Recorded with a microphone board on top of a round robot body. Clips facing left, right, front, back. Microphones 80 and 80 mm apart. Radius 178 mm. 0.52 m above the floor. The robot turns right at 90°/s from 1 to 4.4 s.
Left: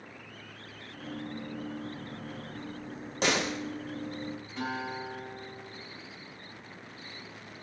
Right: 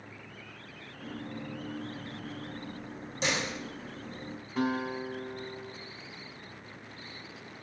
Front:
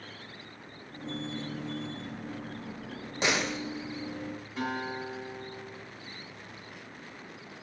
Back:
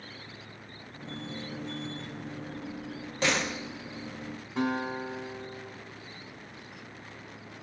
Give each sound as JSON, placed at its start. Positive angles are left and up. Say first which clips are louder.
{"t": 3.2, "sound": "a door slam", "louder": "left 4 dB, even", "azimuth_deg": 70, "distance_m": 1.5}
{"t": 4.6, "sound": "a guitar", "louder": "right 5 dB, back 4 dB", "azimuth_deg": -135, "distance_m": 6.5}